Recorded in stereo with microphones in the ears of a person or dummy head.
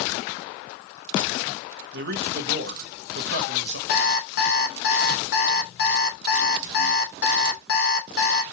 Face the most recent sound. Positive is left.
turn(degrees=70)  # may be behind; listen again after turning